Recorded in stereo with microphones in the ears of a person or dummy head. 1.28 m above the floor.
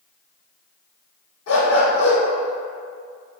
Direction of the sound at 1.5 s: 60° left (ahead or behind).